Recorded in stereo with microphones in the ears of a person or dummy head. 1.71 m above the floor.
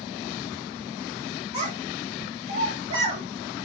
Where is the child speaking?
35° right (ahead or behind), 1.5 m.